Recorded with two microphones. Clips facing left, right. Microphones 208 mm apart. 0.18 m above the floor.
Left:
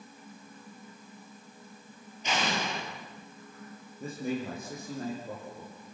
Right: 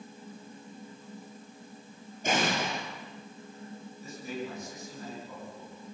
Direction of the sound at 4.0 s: 55° left (ahead or behind).